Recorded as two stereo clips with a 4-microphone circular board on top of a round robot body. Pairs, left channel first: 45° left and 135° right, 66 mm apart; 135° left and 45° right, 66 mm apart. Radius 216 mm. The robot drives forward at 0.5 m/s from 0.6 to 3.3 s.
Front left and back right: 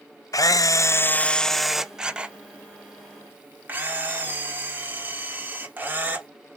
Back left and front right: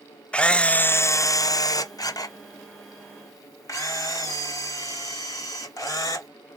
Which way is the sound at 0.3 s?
65° left.